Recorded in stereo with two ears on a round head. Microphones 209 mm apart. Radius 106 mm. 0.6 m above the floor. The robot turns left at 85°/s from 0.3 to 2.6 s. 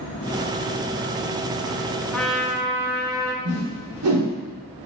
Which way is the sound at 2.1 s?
10° left.